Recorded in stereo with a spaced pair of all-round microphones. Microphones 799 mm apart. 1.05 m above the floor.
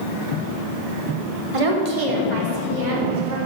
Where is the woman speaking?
40° right (ahead or behind), 1.0 m; by 3.4 s 70° right (ahead or behind), 2.0 m.